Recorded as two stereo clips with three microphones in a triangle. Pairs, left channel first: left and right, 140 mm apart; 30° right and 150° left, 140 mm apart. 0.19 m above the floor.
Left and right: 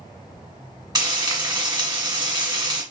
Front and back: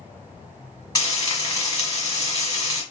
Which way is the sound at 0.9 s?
65° right.